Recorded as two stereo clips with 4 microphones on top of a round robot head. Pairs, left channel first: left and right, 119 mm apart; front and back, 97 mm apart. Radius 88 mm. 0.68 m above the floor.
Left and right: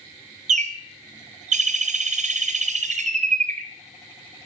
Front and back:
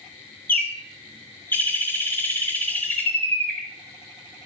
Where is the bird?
75° right, 1.9 m.